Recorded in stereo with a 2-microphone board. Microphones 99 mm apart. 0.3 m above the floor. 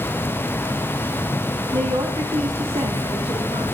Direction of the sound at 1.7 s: 45° right (ahead or behind).